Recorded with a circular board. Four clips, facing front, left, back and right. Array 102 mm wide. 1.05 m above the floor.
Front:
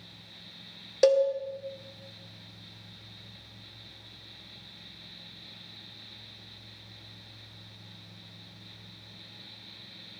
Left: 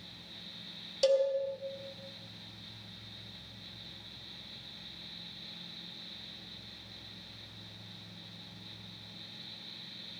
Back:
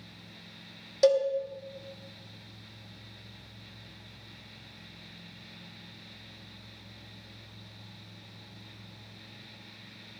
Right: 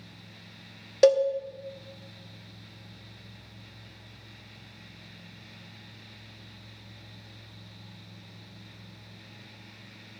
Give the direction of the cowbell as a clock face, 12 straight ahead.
2 o'clock.